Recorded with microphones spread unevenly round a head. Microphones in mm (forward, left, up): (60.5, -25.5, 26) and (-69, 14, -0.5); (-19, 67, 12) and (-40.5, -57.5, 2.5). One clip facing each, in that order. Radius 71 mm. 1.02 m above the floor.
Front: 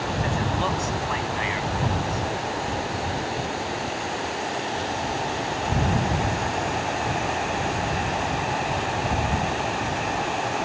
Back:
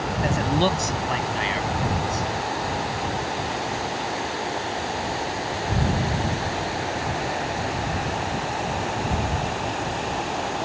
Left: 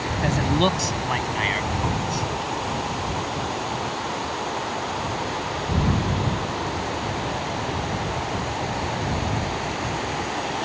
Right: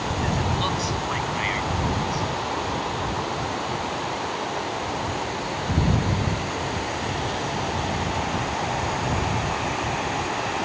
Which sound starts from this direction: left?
A man speaking, at 0.2 s.